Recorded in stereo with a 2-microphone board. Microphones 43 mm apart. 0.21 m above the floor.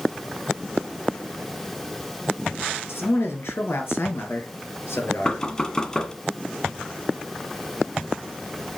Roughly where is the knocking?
Centre.